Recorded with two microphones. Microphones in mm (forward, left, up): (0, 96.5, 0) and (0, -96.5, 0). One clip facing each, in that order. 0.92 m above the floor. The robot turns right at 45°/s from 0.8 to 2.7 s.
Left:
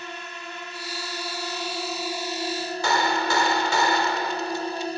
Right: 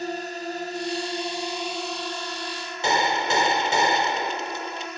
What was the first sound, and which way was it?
A drone, 45° right.